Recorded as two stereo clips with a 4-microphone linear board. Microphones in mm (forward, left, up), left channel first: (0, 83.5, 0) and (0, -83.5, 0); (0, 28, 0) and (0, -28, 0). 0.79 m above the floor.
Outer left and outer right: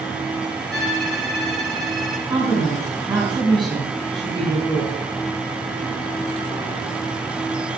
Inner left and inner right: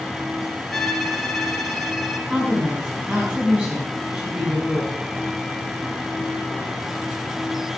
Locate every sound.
0.7 s a violin: 5° left (ahead or behind), 3.5 m
2.3 s a woman speaking: 25° right (ahead or behind), 6.5 m